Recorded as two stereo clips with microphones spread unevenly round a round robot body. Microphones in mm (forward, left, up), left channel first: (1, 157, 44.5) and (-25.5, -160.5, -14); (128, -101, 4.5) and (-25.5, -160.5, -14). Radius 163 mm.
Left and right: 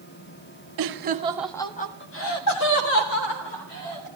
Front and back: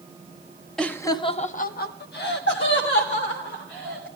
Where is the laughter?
70° right, 1.4 m; by 4.1 s 55° left, 4 m.